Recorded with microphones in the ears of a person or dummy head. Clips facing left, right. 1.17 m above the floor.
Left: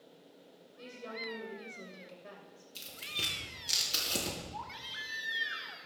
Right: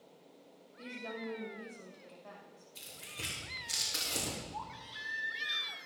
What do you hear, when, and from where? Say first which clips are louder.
0.8 s a woman speaking: right 2 dB; 40° left (ahead or behind), 6.5 m
2.8 s tearing paper: left 3 dB; 45° left (ahead or behind), 5 m
4.5 s a baby crying: even; 30° left (ahead or behind), 3 m